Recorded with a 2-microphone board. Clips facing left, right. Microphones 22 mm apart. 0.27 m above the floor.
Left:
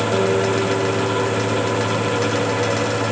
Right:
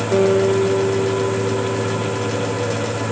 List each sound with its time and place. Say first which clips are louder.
0.1 s a guitar: right 6 dB; 40° right (ahead or behind), 4.5 m